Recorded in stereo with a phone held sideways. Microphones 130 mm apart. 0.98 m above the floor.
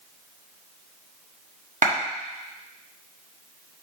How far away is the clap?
About 1.3 m.